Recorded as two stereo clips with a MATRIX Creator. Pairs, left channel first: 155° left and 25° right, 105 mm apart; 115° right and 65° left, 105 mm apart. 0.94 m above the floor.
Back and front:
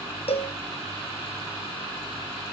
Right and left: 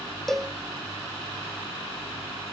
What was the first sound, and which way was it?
A cowbell, 160° left.